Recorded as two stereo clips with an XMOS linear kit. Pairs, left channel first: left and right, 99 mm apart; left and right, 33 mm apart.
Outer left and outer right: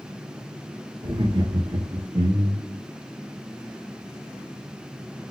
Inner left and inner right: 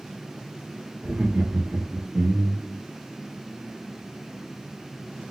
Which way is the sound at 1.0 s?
60° right (ahead or behind).